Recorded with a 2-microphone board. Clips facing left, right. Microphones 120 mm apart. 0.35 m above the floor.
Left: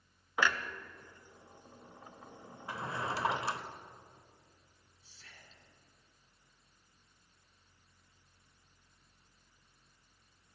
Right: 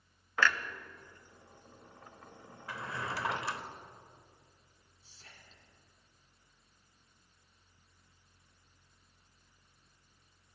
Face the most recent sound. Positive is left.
turn(degrees=-35)  # may be behind; listen again after turning